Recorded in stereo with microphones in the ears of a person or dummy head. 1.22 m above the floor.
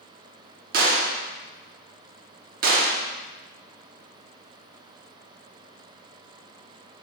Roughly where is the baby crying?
No baby crying in this recording.